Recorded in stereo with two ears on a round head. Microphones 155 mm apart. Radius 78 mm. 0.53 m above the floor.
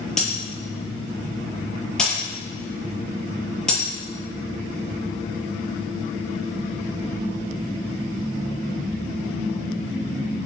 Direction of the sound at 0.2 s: 5° left (ahead or behind).